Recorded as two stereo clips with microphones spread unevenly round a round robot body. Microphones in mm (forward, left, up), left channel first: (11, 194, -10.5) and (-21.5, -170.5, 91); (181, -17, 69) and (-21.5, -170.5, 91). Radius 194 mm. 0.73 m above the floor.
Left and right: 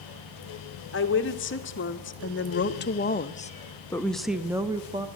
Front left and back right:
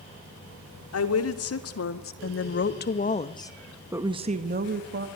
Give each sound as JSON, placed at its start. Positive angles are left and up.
{"t": 0.9, "sound": "a woman speaking", "azimuth_deg": 35, "distance_m": 2.5}